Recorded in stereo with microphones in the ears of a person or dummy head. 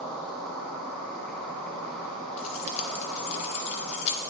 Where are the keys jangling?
35° left (ahead or behind), 0.6 m.